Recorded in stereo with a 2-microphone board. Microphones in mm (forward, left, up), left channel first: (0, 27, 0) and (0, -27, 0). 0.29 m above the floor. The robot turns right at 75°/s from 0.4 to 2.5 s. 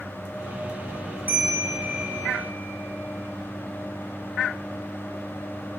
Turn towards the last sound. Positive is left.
turn(degrees=-55)